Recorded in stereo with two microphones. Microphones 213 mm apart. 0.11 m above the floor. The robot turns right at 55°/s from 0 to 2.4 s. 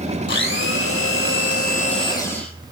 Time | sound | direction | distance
0.3 | a blender | 55° left | 0.6 m